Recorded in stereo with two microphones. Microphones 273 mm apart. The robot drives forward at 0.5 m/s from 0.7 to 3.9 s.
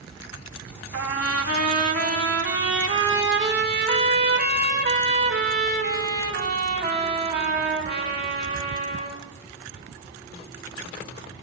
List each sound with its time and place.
0.9 s a trumpet: 55° right (ahead or behind), 1.0 m; by 9.2 s 35° right (ahead or behind), 1.4 m